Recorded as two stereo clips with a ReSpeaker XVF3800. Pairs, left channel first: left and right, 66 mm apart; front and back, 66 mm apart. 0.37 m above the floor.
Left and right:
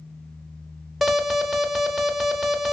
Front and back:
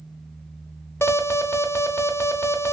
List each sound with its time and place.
1.0 s an alarm: straight ahead, 0.6 m